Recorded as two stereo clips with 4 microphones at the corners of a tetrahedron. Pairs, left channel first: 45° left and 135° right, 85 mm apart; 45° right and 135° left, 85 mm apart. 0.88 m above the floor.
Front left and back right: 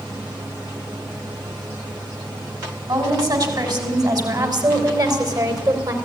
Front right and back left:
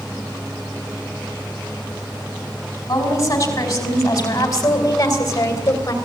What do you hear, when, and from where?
2.9 s a woman speaking: 95° right, 6 m